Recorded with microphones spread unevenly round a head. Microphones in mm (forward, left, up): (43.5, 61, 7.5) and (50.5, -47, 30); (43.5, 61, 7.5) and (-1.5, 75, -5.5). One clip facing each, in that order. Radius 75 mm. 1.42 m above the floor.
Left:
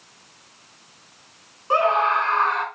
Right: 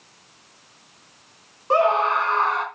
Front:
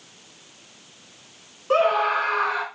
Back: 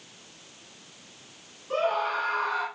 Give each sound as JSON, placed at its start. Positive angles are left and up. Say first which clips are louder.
{"t": 1.7, "sound": "a scream", "louder": "right 1 dB, front 7 dB", "azimuth_deg": -30, "distance_m": 4.0}